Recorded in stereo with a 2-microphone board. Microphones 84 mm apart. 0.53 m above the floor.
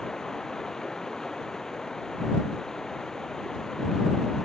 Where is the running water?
5° left (ahead or behind).